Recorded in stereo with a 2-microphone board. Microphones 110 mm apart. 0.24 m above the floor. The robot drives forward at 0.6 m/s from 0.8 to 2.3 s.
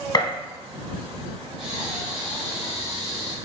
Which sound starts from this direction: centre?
Breathing, at 1.6 s.